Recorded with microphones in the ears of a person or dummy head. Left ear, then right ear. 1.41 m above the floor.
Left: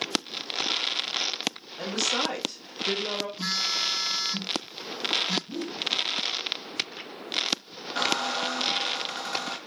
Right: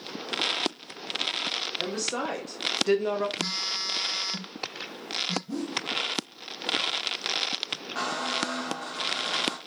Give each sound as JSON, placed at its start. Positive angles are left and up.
{"t": 1.8, "sound": "a woman speaking", "side_deg": 15, "distance_m": 1.6}
{"t": 3.4, "sound": "a phone buzzing", "side_deg": 25, "distance_m": 0.7}
{"t": 5.5, "sound": "a whoosh", "side_deg": -50, "distance_m": 1.0}
{"t": 8.0, "sound": "a squeak", "side_deg": 5, "distance_m": 1.1}